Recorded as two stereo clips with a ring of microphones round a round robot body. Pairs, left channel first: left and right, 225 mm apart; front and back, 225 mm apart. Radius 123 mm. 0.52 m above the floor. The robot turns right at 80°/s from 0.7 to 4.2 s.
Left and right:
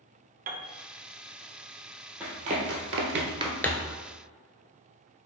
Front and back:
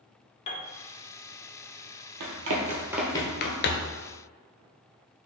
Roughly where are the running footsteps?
Behind.